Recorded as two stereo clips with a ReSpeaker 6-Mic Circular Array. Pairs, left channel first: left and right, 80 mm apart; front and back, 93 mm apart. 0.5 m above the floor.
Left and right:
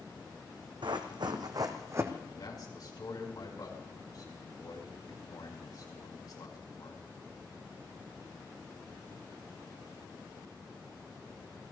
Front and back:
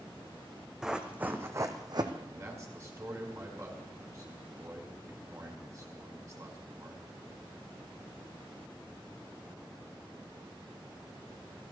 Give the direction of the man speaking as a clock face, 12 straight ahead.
8 o'clock.